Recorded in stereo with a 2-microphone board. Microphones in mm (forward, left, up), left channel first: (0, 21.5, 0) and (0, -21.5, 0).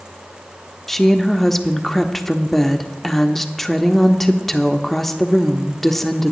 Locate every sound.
0.9 s a woman speaking: 5° left (ahead or behind), 0.7 m